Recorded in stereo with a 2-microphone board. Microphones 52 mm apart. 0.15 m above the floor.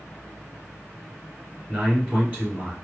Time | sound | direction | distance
1.7 | a man speaking | 30° right (ahead or behind) | 1.8 m